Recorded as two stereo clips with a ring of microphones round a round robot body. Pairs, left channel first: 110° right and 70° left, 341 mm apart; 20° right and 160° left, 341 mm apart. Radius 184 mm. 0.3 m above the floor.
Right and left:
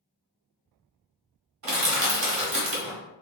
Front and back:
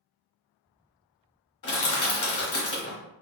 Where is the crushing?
25° left, 1.4 m.